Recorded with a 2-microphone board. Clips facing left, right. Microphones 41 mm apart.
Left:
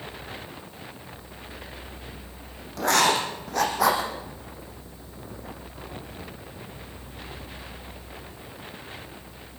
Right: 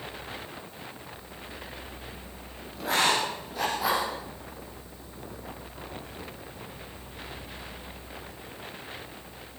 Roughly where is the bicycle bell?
No bicycle bell in this recording.